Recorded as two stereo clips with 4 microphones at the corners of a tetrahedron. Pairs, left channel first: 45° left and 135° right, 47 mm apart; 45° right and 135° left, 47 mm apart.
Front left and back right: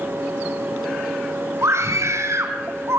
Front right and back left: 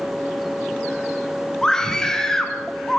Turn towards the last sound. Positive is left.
turn(degrees=-125)